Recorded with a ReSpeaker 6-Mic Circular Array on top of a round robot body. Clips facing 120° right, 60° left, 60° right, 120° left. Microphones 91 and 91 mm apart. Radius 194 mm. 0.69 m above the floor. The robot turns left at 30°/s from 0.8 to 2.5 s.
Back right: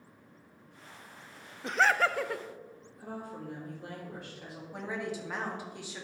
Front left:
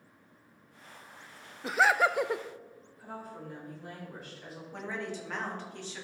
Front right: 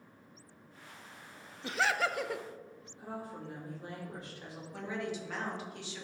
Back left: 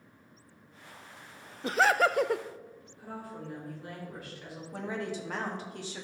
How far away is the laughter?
About 0.5 m.